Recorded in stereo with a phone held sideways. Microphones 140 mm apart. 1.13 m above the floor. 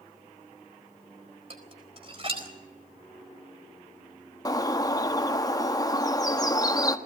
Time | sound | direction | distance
1.5 | dishes clattering | 40° right (ahead or behind) | 4 m
4.5 | a bird | 25° left (ahead or behind) | 1.1 m